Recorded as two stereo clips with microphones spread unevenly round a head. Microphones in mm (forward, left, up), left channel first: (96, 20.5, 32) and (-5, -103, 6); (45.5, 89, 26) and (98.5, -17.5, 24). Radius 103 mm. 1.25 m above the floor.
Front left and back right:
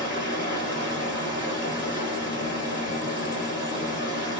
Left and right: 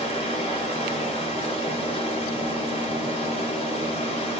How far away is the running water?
About 1.7 m.